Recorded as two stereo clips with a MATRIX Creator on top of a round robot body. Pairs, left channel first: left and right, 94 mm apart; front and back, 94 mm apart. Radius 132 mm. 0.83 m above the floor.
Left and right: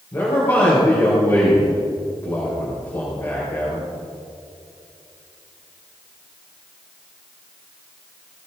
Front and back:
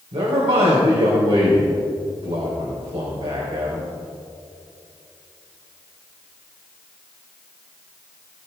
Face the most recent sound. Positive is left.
turn(degrees=155)